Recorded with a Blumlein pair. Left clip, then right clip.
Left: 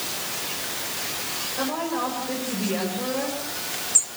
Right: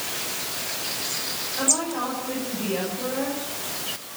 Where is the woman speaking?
5° left, 8 m.